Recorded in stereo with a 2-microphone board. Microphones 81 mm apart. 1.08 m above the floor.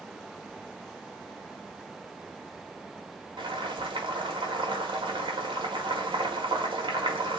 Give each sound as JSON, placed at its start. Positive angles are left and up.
{"t": 3.4, "sound": "boiling", "side_deg": -85, "distance_m": 1.2}